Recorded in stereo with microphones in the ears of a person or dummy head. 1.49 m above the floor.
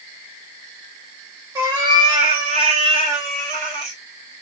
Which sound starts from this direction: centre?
A cat meowing, at 1.6 s.